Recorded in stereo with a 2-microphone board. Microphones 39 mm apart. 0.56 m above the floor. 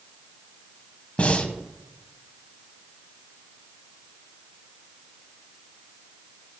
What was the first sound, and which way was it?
Breathing, 35° left (ahead or behind).